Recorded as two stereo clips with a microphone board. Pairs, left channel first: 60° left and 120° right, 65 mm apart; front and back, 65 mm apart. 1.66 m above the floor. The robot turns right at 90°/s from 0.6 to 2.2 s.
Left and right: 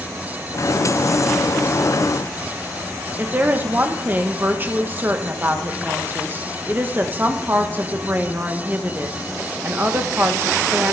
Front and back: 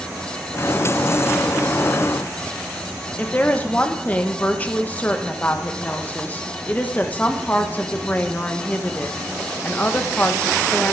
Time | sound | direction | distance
3.2 | a woman speaking | 65° right | 1.2 m